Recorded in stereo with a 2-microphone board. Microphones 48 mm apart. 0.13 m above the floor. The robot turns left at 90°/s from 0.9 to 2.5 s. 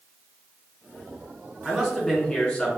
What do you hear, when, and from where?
1.6 s a man speaking: 5° right (ahead or behind), 1.3 m; by 2.7 s 25° left (ahead or behind), 1.3 m